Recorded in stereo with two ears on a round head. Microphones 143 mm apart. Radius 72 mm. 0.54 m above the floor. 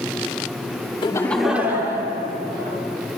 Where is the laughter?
30° left (ahead or behind), 0.8 m; by 2.8 s 35° right (ahead or behind), 2.5 m.